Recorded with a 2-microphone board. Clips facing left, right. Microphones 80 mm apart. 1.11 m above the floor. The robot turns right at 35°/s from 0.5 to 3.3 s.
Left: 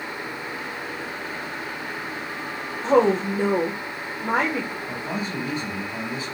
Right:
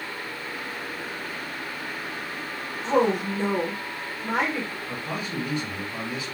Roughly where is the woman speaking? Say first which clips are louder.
Left 4 dB; left.